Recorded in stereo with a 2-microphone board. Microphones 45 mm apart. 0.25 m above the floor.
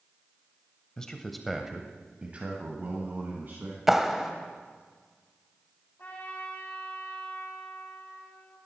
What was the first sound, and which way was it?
A man speaking, 15° left (ahead or behind).